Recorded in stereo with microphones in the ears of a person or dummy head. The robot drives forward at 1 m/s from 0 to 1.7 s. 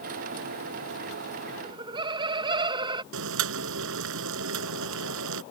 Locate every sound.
1.6 s laughter: 25° right (ahead or behind); by 3.0 s 20° right (ahead or behind)
3.1 s boiling: 75° right (ahead or behind)